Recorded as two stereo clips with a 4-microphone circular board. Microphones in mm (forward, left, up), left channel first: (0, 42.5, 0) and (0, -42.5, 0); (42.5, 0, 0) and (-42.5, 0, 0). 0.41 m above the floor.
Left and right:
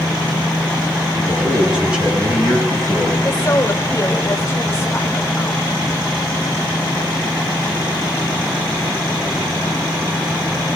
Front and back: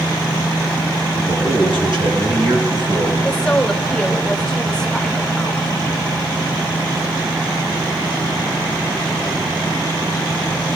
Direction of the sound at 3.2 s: 75° left.